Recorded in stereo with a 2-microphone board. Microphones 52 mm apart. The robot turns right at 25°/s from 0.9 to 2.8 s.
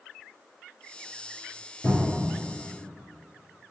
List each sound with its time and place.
1.8 s a cupboard door: 30° left (ahead or behind), 1.9 m; by 2.3 s 20° left (ahead or behind), 1.9 m